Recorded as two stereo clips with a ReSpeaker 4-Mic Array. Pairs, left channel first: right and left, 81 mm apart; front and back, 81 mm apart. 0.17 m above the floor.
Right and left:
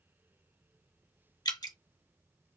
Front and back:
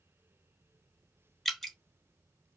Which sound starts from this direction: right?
Dripping, at 1.4 s.